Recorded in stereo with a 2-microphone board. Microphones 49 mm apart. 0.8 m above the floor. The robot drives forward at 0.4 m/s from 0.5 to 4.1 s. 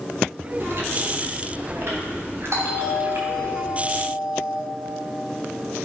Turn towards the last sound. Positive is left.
turn(degrees=-70)  # may be behind; listen again after turning